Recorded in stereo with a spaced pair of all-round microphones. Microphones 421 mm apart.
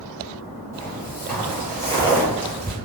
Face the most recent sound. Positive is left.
turn(degrees=0)  # may be behind; listen again after turning